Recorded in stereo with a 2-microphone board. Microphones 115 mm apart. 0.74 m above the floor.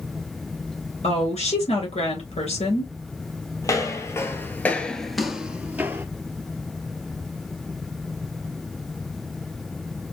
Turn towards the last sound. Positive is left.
turn(degrees=-20)  # may be behind; listen again after turning